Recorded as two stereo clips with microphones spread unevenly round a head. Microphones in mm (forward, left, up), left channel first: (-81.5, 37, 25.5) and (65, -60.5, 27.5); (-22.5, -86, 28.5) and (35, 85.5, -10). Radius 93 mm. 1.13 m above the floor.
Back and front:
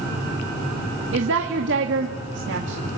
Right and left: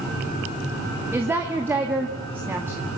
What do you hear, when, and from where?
1.1 s a woman speaking: 5° right, 1.9 m